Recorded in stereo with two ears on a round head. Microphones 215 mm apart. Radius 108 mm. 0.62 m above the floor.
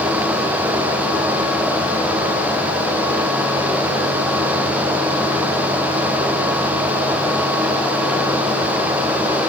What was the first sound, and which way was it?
Only background noise.